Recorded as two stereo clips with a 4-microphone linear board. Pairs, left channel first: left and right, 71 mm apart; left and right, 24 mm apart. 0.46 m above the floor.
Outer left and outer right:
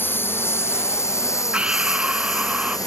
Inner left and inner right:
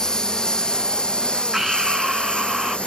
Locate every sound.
0.0 s a lawn mower: 30° left (ahead or behind); by 2.9 s 60° left (ahead or behind)
1.5 s breathing: 15° right (ahead or behind)